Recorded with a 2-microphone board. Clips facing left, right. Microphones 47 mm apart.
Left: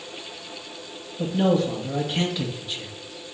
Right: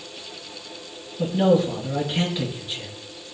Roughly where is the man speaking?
Centre.